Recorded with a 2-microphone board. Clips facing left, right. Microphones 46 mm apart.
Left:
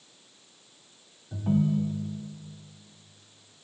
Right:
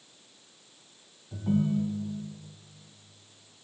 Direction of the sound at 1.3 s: 25° left (ahead or behind).